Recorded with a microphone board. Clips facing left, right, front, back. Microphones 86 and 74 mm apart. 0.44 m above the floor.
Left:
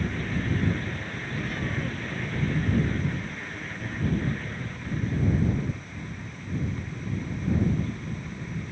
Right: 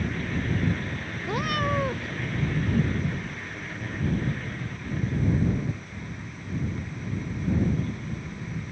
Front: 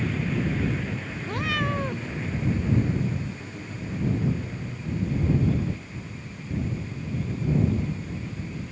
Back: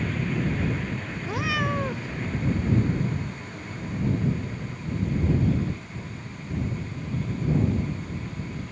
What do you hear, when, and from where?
1.2 s a cat meowing: 95° right